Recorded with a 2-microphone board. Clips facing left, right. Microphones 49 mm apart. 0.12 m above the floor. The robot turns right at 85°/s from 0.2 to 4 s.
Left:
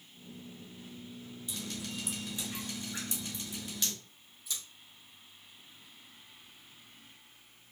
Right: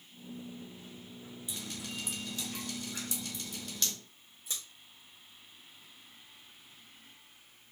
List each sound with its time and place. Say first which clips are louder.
1.5 s dripping: left 2 dB; 15° right (ahead or behind), 2.0 m; by 3.9 s 5° left (ahead or behind), 2.0 m
4.5 s scissors: even; 40° right (ahead or behind), 3 m